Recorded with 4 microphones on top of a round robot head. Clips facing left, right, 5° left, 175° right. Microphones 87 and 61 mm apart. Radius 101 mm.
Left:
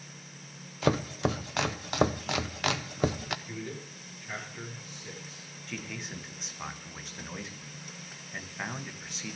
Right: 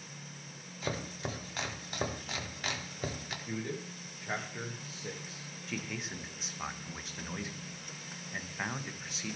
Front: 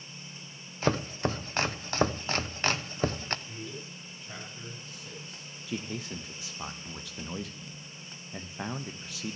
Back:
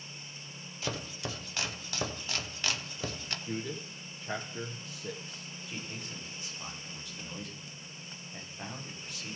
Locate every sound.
0.8 s chopping: 60° left, 0.6 m
3.5 s a man speaking: 155° right, 1.8 m
5.7 s a man speaking: straight ahead, 1.2 m